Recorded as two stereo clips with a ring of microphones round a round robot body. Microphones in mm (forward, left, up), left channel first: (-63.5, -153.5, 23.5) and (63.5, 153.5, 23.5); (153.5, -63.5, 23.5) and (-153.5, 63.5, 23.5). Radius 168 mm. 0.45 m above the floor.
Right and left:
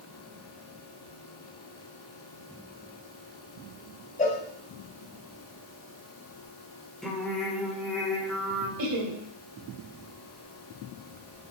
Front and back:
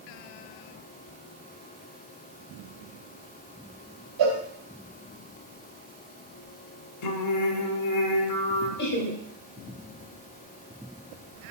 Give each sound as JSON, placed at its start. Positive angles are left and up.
{"t": 4.2, "sound": "a cowbell", "azimuth_deg": 180, "distance_m": 1.9}
{"t": 7.0, "sound": "singing", "azimuth_deg": -25, "distance_m": 1.1}
{"t": 8.8, "sound": "laughter", "azimuth_deg": 30, "distance_m": 2.0}